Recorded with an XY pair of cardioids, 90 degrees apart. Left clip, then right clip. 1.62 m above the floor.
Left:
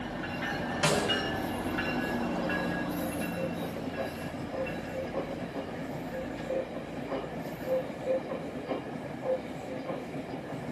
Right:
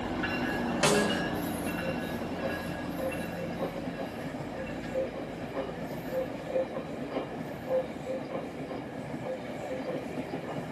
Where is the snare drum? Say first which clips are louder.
Right 1 dB; 50° right, 3 m.